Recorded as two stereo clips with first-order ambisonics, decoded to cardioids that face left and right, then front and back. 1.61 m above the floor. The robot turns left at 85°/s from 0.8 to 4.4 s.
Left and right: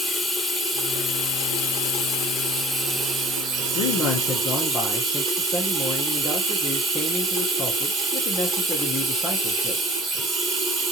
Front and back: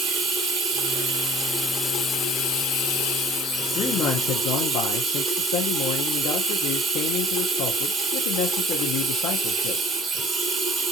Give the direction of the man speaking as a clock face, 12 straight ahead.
10 o'clock.